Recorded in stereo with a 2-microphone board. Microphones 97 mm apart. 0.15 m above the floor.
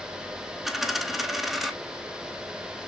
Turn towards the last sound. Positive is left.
turn(degrees=0)  # may be behind; listen again after turning